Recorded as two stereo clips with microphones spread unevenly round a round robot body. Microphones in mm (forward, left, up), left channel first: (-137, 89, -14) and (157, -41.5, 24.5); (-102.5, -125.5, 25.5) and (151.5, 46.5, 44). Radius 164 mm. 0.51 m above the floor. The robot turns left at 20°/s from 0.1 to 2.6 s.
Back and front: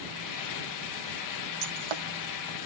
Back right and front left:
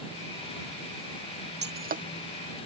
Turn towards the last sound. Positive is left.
turn(degrees=-40)